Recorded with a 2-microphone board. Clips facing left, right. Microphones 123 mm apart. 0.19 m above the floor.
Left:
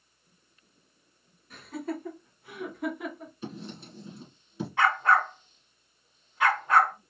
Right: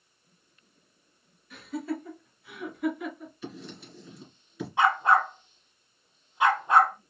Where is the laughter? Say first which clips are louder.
Right 2 dB; 40° left (ahead or behind), 1.9 m.